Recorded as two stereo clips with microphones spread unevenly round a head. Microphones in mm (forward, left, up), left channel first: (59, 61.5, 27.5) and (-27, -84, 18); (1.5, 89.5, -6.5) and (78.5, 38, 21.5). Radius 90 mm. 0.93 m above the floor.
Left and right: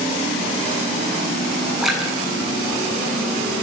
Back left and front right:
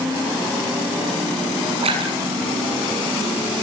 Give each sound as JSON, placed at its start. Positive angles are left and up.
{"t": 1.8, "sound": "a splash", "azimuth_deg": -30, "distance_m": 7.5}